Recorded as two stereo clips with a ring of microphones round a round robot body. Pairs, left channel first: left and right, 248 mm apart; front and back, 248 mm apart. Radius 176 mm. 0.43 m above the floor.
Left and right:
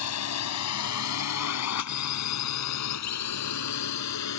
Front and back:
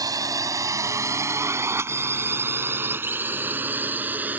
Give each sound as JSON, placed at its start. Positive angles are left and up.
{"t": 0.0, "sound": "a drone", "azimuth_deg": 105}